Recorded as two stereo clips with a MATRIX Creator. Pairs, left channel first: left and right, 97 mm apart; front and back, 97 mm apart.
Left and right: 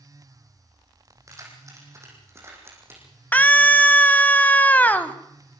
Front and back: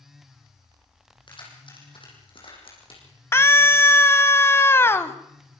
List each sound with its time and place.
1.3 s keys jangling: 35° right, 6.5 m; by 3.0 s 25° right, 8.5 m
3.3 s a scream: 35° left, 1.3 m